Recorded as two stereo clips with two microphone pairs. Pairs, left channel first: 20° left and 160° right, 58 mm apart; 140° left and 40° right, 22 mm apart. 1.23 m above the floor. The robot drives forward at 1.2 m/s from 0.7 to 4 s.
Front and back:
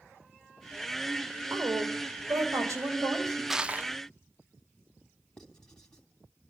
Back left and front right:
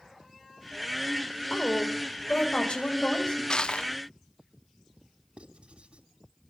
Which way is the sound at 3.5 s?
115° left.